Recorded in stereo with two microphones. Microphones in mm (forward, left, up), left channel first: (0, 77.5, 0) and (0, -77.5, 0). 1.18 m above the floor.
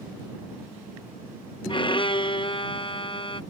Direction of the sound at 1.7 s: 35° left (ahead or behind).